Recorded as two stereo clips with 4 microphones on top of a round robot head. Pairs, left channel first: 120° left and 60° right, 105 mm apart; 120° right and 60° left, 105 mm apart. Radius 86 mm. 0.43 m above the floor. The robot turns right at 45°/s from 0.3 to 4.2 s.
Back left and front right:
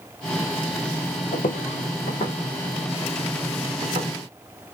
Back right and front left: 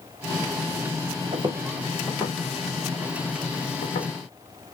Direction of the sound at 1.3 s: 110° left.